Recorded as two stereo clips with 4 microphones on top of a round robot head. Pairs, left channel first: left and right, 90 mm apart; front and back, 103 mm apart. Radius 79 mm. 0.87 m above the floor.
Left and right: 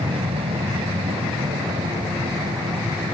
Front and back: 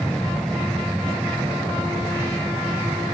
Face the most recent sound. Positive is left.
turn(degrees=-85)